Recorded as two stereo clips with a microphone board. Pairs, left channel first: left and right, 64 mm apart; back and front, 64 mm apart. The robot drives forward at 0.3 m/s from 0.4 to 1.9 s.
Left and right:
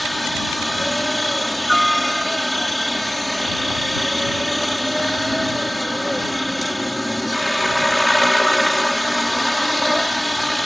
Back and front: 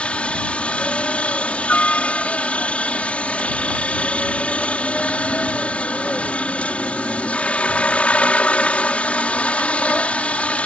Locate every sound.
0.0 s a helicopter: 175° left